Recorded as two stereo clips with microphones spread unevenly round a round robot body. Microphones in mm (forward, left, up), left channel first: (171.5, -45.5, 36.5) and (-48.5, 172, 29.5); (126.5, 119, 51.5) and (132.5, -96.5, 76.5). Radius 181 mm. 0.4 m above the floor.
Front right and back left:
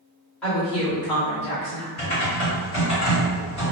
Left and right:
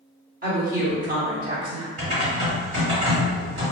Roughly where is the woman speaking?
Behind right.